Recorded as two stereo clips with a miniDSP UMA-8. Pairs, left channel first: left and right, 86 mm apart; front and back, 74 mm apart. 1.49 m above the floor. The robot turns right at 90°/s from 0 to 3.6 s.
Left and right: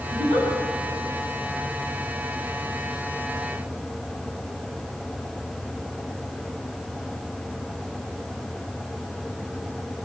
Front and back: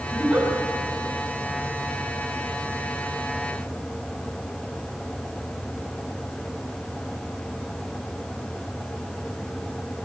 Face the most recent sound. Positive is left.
turn(degrees=-170)